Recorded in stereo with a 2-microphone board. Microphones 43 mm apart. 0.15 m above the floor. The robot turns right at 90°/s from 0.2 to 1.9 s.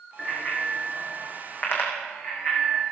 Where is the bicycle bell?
15° right (ahead or behind), 5.5 m; by 2.8 s 40° left (ahead or behind), 5.5 m.